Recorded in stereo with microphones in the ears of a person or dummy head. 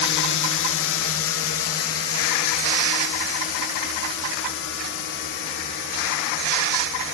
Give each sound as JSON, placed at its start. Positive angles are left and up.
{"t": 0.0, "sound": "a drone", "side_deg": 60}